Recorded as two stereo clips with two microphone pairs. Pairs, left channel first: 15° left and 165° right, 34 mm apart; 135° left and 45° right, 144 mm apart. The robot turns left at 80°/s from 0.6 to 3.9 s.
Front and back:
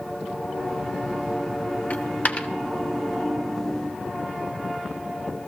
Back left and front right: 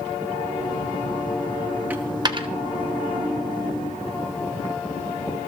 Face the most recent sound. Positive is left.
turn(degrees=-130)